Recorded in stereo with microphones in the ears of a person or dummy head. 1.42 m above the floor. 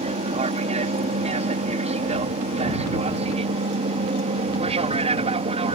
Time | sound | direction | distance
0.0 | an aircraft | 35° right (ahead or behind) | ?